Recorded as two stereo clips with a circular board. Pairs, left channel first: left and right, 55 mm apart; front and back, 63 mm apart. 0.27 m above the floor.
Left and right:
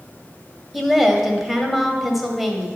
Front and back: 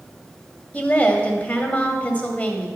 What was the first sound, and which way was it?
A woman speaking, 5° right.